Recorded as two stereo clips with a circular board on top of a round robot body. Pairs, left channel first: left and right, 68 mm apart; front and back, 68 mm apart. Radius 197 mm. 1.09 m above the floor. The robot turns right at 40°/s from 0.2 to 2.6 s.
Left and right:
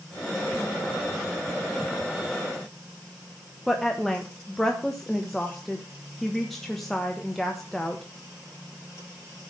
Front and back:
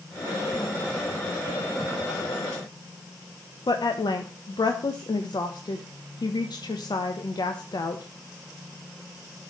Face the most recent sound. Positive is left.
turn(degrees=5)